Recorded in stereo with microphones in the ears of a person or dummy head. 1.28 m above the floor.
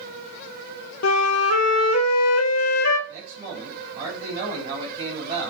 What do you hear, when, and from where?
1.0 s a flute: 85° left, 0.9 m
3.1 s a man speaking: 35° right (ahead or behind), 3.5 m